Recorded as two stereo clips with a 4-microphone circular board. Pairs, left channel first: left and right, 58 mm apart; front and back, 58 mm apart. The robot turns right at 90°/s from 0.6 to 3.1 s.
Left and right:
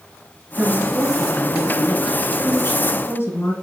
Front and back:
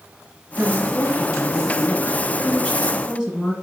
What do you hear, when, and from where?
0.6 s a woman speaking: 120° right, 1.3 m; by 3.5 s 105° left, 1.3 m